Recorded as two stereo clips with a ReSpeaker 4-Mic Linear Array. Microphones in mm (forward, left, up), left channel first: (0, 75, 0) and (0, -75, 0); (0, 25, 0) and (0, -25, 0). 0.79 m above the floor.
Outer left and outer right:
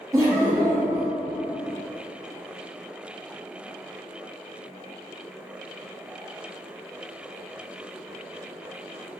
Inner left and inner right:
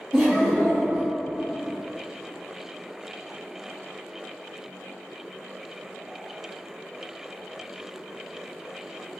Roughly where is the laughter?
Right.